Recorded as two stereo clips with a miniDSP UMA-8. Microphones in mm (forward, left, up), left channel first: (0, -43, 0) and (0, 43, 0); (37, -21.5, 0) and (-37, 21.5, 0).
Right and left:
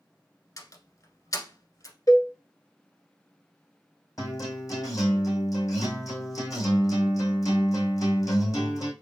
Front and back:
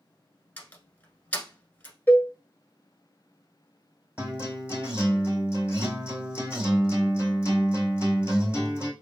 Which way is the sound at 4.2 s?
135° right.